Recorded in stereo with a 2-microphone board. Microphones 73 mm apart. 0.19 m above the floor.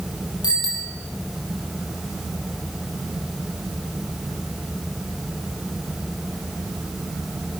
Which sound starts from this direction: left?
A bicycle bell, at 0.4 s.